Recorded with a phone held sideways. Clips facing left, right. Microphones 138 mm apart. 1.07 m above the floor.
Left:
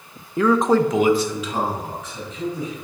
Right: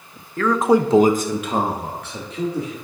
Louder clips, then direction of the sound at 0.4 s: Even; 20° left (ahead or behind).